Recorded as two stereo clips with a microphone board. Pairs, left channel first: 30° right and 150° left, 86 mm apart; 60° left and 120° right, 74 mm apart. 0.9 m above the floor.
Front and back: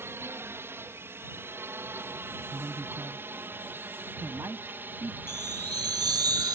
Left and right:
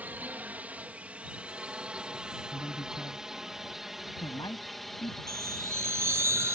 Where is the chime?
175° right.